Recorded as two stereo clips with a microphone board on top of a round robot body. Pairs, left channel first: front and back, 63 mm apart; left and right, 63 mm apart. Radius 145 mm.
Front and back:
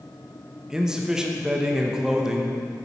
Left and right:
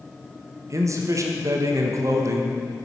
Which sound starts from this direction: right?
A man speaking, at 0.7 s.